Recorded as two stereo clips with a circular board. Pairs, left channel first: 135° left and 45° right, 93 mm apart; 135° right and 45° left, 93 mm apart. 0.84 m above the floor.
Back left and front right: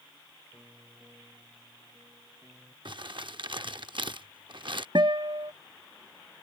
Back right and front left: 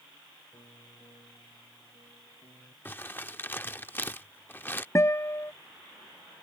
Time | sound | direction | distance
0.5 | a piano | 110° right | ?
2.9 | crumpling | 70° right | ?
5.0 | a guitar | 75° right | ?